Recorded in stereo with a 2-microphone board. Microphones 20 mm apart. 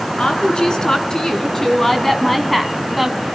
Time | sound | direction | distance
0.2 | a woman speaking | 50° left (ahead or behind) | 3.5 m